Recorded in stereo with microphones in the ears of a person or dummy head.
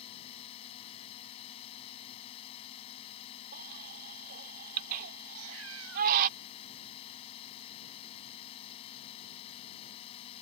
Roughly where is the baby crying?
Right.